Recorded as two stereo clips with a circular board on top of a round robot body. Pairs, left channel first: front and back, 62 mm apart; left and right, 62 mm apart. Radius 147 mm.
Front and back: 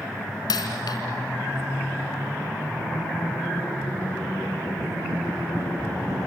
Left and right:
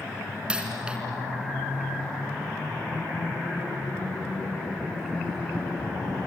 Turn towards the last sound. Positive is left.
turn(degrees=-15)